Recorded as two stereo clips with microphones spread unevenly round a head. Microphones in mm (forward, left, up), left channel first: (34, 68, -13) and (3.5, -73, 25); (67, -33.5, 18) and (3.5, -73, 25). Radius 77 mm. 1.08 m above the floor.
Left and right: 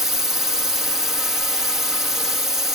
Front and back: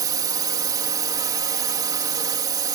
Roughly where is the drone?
Behind.